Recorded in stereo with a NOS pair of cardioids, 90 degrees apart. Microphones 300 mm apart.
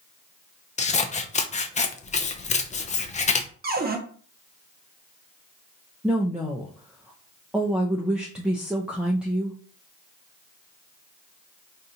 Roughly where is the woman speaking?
Ahead.